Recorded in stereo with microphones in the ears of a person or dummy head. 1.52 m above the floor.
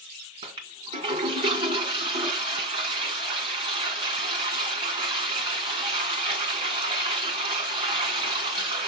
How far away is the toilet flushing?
About 1.7 m.